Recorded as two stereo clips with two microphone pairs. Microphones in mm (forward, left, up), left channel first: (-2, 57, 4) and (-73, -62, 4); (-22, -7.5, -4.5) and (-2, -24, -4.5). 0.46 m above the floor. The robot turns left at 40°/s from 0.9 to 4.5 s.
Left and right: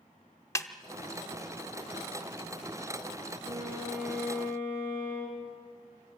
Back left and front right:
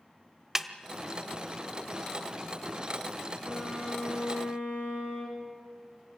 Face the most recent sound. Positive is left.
turn(degrees=135)